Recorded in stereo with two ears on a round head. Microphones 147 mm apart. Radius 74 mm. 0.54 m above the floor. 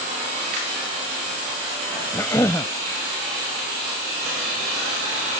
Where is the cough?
15° left (ahead or behind).